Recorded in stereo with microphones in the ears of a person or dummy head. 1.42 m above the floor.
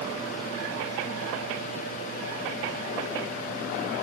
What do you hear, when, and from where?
Only background noise.